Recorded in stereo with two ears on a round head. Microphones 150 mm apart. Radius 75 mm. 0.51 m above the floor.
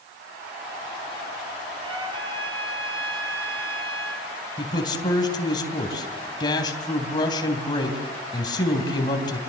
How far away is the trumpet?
About 4.5 m.